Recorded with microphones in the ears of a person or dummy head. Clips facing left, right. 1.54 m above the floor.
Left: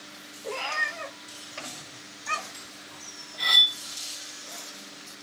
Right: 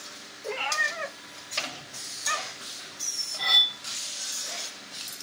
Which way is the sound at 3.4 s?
20° left (ahead or behind).